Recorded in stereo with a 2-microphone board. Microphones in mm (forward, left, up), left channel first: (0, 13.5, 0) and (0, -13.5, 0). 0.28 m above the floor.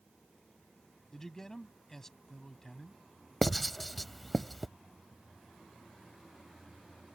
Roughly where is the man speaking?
Centre.